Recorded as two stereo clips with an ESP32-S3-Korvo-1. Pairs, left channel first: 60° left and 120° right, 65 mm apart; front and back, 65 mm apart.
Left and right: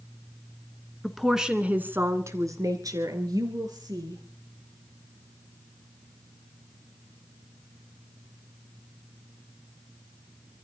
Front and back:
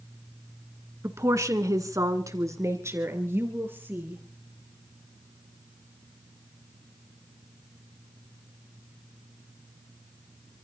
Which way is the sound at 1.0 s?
145° left.